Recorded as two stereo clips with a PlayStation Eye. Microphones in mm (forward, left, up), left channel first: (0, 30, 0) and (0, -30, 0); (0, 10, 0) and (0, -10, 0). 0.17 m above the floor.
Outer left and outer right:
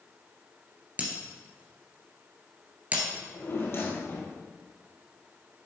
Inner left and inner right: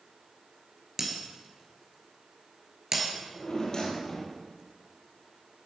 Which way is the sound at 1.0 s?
25° right (ahead or behind).